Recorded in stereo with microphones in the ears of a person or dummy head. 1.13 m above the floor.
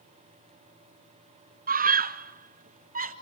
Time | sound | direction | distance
1.7 | a scream | 40° right (ahead or behind) | 0.8 m